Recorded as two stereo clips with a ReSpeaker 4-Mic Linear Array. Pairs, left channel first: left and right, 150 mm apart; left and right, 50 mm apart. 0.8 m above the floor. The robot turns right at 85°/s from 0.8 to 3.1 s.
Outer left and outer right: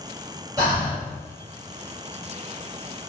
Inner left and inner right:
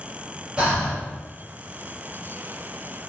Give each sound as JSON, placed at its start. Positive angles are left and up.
{"t": 0.6, "sound": "breathing", "side_deg": -25, "distance_m": 1.5}